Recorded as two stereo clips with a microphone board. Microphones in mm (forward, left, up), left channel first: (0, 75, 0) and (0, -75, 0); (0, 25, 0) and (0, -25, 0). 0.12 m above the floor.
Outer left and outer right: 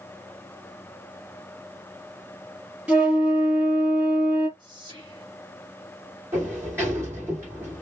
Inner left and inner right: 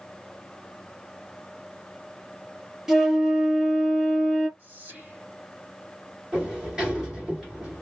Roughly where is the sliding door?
Centre.